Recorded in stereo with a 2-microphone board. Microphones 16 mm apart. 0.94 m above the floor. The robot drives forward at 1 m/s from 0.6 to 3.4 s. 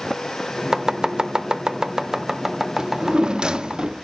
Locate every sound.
0.7 s chopping: 40° right (ahead or behind), 0.9 m; by 3.8 s 15° right (ahead or behind), 2.5 m
2.8 s a drawer: 50° right (ahead or behind), 0.7 m